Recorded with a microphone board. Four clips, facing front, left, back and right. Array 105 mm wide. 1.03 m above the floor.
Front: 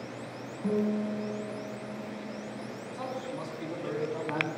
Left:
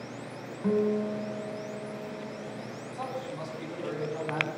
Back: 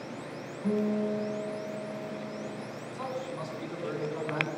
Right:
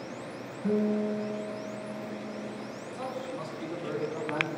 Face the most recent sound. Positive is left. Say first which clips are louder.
# even, back 1 dB
turn(degrees=35)